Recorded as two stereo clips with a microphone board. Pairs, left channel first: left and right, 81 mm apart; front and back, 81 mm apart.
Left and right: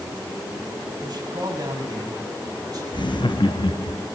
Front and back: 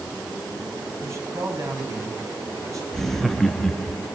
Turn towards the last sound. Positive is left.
turn(degrees=85)